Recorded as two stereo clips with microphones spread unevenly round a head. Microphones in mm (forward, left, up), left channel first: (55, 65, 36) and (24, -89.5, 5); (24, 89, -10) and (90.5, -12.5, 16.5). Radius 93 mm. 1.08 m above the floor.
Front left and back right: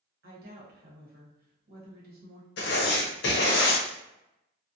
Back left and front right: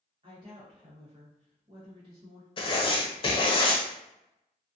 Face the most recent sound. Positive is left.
turn(degrees=75)